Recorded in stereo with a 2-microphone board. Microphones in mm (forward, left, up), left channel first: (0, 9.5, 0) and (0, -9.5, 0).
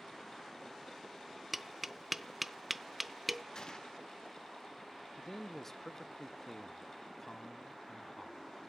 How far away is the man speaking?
About 0.6 m.